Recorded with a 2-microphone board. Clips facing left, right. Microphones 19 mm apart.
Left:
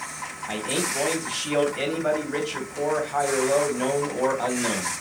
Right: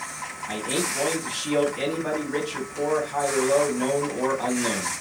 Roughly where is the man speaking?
Left.